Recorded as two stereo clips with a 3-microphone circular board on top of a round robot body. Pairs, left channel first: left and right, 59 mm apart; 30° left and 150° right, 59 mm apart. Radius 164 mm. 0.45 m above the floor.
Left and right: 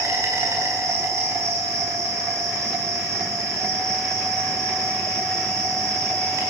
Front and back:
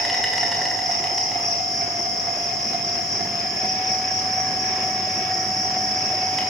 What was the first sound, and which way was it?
An insect, 55° right.